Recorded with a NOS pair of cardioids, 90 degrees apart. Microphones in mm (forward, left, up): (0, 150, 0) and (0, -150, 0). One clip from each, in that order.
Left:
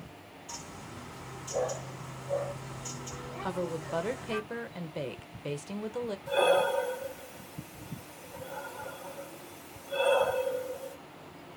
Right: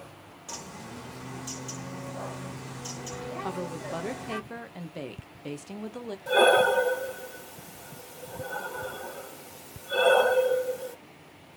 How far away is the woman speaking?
About 0.7 m.